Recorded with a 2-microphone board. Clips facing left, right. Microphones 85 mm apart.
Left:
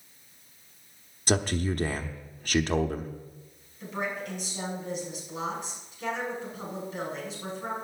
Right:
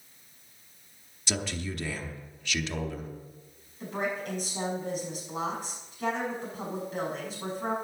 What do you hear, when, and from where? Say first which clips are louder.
1.3 s a man speaking: left 7 dB; 45° left (ahead or behind), 0.9 m
3.8 s a woman speaking: right 1 dB; 45° right (ahead or behind), 6 m